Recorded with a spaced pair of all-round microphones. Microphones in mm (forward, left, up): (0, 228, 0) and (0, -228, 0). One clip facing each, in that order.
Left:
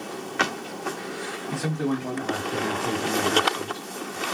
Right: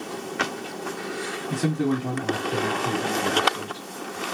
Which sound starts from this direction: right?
A man speaking, at 1.5 s.